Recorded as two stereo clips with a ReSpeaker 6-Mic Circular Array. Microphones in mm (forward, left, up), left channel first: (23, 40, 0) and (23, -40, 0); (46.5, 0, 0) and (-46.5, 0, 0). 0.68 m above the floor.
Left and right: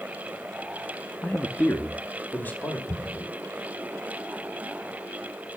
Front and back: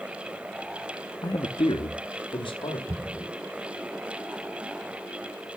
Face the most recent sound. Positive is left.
turn(degrees=150)